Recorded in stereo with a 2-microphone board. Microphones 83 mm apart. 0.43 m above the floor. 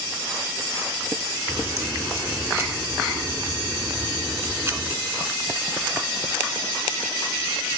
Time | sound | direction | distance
1.5 | a crack | 25° right (ahead or behind) | 1.9 m